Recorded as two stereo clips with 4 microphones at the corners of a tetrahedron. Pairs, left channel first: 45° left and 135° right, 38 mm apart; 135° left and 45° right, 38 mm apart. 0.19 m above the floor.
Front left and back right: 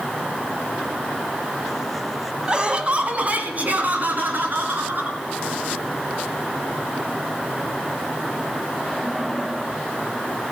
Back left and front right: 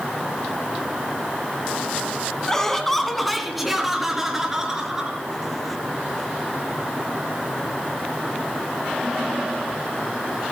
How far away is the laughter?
About 1.3 m.